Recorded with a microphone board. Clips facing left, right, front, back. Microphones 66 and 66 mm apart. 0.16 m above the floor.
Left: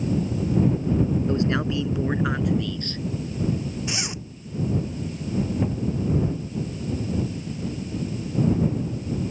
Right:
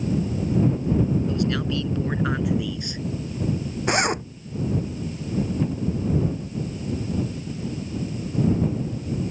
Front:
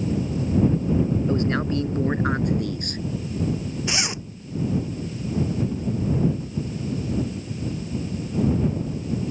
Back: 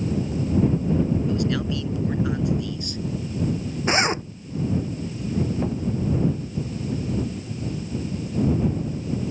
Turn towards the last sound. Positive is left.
turn(degrees=165)